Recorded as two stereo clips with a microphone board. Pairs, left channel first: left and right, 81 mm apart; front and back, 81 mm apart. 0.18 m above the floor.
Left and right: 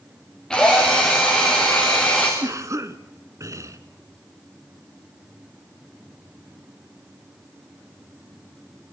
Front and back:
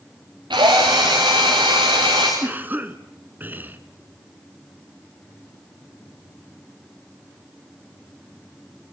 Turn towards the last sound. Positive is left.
turn(degrees=-120)